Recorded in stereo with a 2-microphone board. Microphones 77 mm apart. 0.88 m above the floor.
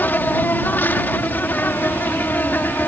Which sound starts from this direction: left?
An insect, at 0.0 s.